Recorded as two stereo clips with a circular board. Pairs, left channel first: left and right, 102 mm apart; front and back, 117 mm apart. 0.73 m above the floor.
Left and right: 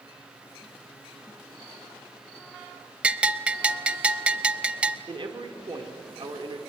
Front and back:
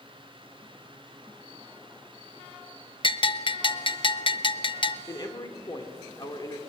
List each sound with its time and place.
3.0 s a bell: 15° right, 0.6 m
5.1 s a man speaking: 55° right, 2.5 m